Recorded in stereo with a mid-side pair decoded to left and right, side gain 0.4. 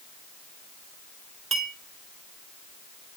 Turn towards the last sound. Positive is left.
turn(degrees=-55)